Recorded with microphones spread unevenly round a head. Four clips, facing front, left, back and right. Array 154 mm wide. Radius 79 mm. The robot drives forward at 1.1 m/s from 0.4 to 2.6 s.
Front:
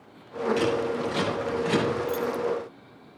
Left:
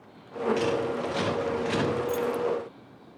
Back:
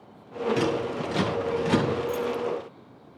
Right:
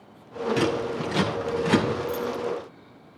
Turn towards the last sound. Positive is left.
turn(degrees=90)